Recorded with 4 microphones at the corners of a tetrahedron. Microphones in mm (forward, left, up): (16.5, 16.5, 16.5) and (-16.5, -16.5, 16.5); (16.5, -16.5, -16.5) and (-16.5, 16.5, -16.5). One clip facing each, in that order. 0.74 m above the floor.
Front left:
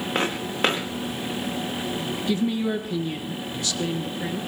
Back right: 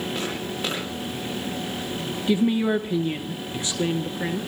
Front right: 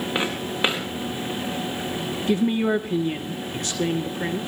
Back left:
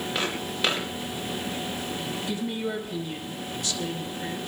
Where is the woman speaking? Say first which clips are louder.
Back right 4 dB, front right 11 dB; 75° right, 1.0 m.